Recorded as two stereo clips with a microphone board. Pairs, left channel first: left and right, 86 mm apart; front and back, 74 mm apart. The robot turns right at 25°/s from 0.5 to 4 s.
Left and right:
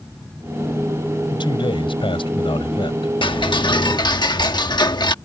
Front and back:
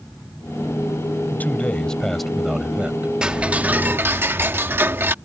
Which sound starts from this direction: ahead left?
A man speaking, at 1.3 s.